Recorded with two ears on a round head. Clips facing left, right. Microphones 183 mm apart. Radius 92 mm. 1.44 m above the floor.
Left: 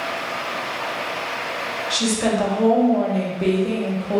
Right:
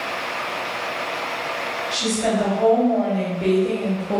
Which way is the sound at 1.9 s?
65° left (ahead or behind).